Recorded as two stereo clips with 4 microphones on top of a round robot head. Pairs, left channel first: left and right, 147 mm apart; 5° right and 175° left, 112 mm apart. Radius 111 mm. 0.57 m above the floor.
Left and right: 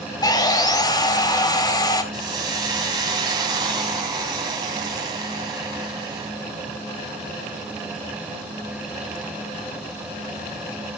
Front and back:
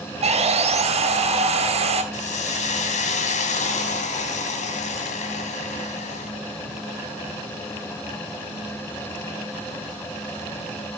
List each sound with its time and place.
0.2 s sawing: 150° left, 3.5 m
2.1 s a hiss: 25° right, 2 m